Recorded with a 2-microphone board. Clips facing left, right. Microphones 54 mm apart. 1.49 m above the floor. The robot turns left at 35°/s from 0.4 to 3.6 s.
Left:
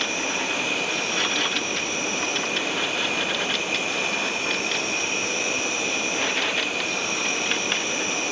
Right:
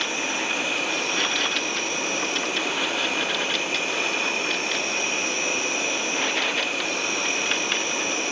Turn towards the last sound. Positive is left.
turn(degrees=-135)